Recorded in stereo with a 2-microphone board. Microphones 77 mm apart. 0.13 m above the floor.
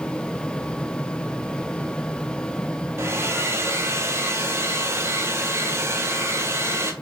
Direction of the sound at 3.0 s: 35° right (ahead or behind).